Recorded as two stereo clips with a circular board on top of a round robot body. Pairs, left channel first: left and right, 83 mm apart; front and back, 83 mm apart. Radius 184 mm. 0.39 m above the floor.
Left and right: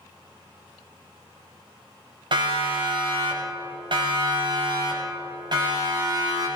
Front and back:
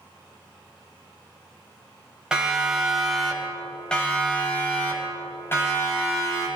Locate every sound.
2.3 s a siren: 100° right, 3.5 m; by 6.5 s 55° right, 4.5 m